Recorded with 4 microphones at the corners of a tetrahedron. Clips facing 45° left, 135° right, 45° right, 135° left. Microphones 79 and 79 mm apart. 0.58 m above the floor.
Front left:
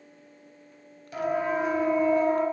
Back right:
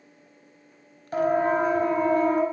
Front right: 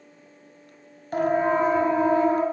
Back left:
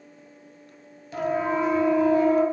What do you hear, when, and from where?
1.1 s a siren: 85° right, 4.5 m; by 2.4 s 105° right, 4.5 m